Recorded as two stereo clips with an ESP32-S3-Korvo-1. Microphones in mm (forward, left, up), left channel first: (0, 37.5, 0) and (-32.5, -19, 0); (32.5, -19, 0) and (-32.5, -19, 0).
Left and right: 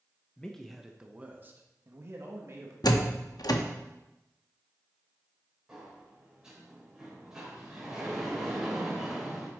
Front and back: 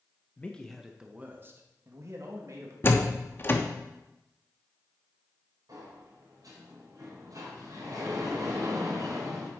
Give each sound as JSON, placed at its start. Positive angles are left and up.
{"t": 0.4, "sound": "a man speaking", "azimuth_deg": 15, "distance_m": 1.0}
{"t": 2.8, "sound": "a door slam", "azimuth_deg": 50, "distance_m": 0.9}
{"t": 5.7, "sound": "a sliding door", "azimuth_deg": 160, "distance_m": 4.0}